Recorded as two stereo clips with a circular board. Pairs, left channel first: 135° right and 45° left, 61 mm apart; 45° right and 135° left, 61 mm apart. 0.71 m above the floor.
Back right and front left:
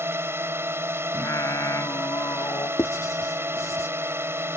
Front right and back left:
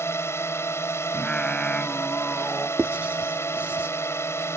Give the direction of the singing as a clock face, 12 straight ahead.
4 o'clock.